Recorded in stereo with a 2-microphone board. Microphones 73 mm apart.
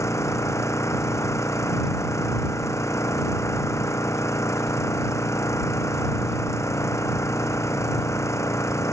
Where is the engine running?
40° left (ahead or behind).